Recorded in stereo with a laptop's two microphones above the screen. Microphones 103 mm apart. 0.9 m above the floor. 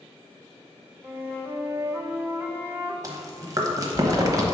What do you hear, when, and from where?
1.0 s a flute: 20° right (ahead or behind), 0.6 m
3.0 s chewing: 35° right (ahead or behind), 1.1 m